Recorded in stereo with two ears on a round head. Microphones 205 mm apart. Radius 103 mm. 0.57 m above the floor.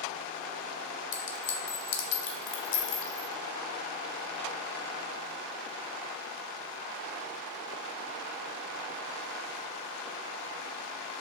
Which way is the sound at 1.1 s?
50° left (ahead or behind).